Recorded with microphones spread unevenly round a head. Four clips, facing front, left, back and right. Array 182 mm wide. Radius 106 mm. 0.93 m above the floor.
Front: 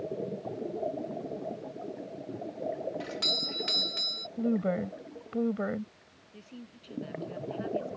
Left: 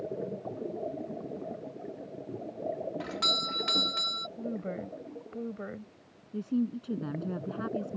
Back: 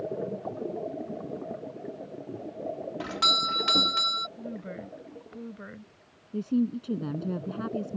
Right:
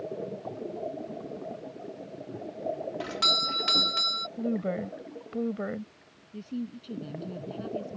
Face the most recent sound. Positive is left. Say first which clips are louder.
# left 6 dB, back 22 dB
turn(degrees=160)